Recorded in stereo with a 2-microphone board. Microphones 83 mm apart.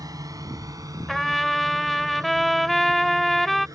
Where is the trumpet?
Centre (ahead or behind).